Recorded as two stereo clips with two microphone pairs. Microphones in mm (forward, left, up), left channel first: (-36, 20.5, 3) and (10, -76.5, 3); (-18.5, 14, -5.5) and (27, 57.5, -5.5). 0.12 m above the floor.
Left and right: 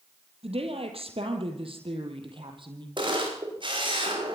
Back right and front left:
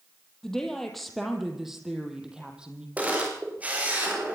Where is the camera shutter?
25° right, 9 m.